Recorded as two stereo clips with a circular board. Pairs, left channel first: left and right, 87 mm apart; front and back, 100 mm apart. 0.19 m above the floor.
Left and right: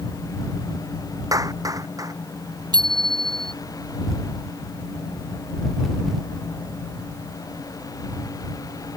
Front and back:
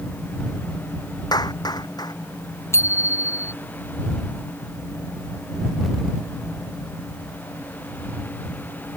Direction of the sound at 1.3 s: 45° right.